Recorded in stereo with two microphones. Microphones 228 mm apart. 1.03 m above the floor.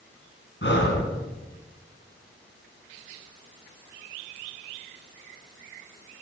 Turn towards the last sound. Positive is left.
turn(degrees=55)  # may be behind; listen again after turning